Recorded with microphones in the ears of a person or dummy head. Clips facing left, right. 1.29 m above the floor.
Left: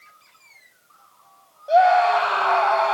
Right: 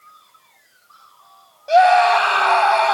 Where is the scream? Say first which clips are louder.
Right 3 dB; 25° right (ahead or behind), 8.5 m.